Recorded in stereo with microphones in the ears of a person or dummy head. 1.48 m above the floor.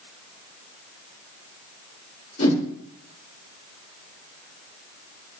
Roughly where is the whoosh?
Left.